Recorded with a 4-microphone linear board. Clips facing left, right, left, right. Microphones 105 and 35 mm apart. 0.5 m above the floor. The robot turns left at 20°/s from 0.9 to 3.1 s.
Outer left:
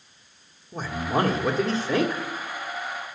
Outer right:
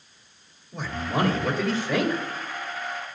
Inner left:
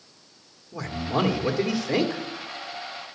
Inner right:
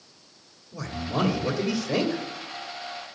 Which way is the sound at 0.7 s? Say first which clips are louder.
Outer left 2 dB, inner left 2 dB; 40° left (ahead or behind).